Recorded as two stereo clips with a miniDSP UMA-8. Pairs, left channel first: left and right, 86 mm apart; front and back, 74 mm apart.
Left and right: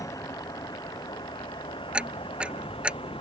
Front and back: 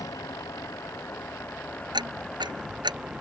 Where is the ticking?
170° right.